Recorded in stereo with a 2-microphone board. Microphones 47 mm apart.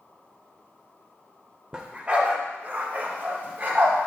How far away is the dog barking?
About 0.8 m.